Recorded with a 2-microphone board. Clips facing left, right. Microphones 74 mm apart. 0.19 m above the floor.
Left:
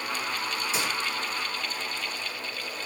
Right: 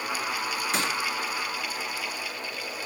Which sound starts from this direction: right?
A gunshot, at 0.7 s.